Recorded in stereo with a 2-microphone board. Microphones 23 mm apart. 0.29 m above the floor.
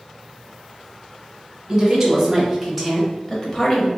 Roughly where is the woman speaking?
Centre.